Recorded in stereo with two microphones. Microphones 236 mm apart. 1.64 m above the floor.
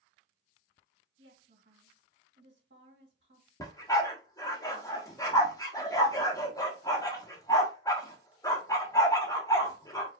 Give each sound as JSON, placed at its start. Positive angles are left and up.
{"t": 1.2, "sound": "a woman speaking", "side_deg": -50, "distance_m": 2.5}
{"t": 3.6, "sound": "a dog barking", "side_deg": 15, "distance_m": 1.2}